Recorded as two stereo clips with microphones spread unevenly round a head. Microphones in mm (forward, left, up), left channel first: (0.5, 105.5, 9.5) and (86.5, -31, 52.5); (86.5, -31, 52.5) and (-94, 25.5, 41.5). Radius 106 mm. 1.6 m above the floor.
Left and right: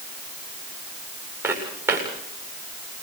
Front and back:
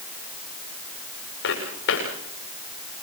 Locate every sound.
1.4 s footsteps: 15° left, 8.5 m